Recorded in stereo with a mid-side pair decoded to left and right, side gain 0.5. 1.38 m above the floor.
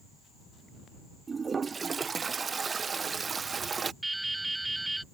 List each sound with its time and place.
1.3 s a toilet flushing: 35° right
4.0 s dripping: 10° right